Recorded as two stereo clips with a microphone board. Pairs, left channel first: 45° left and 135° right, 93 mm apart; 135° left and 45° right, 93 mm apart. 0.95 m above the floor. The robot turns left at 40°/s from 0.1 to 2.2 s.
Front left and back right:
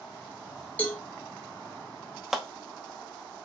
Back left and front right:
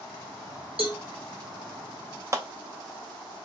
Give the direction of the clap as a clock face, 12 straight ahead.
2 o'clock.